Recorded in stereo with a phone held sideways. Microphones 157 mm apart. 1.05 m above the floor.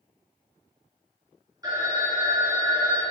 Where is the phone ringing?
25° right (ahead or behind), 0.9 m.